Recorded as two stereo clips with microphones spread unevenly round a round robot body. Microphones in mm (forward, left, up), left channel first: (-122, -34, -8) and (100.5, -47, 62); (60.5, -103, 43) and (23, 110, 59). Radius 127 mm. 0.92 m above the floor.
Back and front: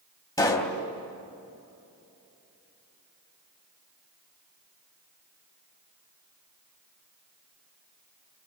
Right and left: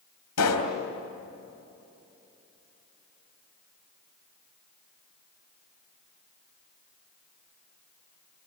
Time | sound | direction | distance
0.4 | a pop | 105° right | 3.5 m